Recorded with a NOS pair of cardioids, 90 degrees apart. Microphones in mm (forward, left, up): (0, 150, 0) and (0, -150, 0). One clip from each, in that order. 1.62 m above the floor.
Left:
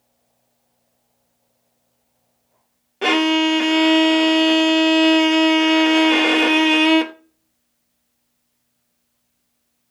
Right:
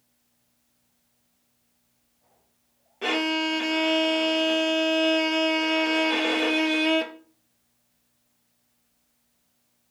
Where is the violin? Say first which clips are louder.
Left 8 dB; 40° left, 0.6 m.